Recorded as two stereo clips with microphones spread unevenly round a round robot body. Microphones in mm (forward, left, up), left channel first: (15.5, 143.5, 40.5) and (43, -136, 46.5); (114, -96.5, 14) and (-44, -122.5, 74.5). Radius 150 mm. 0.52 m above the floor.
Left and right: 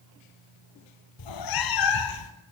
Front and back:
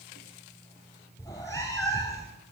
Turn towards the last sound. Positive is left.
turn(degrees=95)